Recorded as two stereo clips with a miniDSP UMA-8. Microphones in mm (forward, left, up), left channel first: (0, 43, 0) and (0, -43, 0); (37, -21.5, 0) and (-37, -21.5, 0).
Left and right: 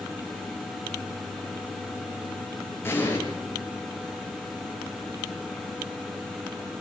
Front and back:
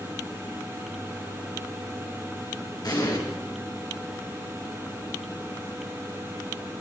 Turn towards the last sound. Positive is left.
turn(degrees=30)